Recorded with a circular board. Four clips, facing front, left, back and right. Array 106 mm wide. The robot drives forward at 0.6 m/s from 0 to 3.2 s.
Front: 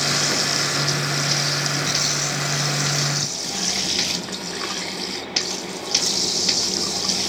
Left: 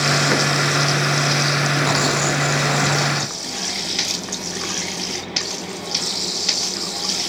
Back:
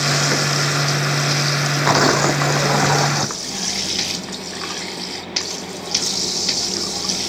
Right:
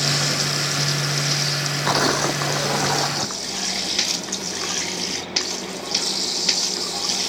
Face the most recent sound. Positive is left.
turn(degrees=-170)